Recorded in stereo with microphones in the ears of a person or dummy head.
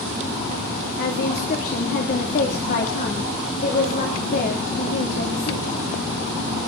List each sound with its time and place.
1.0 s a woman speaking: 50° left (ahead or behind), 2 m